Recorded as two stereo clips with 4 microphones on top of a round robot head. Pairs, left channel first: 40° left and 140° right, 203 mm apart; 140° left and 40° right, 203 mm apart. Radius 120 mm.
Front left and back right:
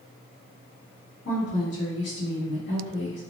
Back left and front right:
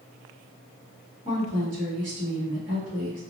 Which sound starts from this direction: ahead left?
A woman speaking, at 1.2 s.